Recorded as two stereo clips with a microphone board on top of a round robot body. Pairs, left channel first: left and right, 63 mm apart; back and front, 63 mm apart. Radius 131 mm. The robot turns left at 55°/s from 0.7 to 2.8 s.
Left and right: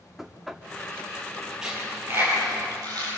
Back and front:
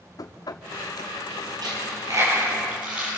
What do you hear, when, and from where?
0.2 s knocking: 175° right, 1.4 m
1.6 s a dropped coin: 5° right, 8 m; by 3.2 s 70° right, 8 m